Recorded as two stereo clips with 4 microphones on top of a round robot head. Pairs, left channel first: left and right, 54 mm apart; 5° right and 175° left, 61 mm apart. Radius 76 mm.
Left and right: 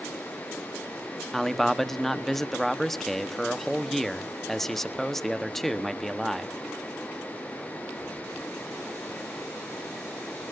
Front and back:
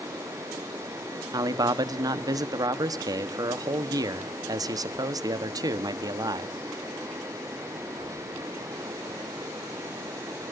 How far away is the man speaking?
About 1.3 m.